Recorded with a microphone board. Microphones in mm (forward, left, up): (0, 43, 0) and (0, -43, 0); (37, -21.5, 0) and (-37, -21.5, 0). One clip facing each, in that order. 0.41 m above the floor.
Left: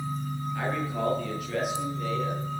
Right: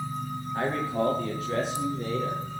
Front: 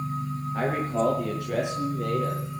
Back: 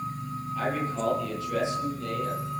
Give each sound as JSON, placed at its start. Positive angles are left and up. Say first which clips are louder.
{"t": 0.5, "sound": "a man speaking", "louder": "right 4 dB, front 3 dB", "azimuth_deg": -35, "distance_m": 8.0}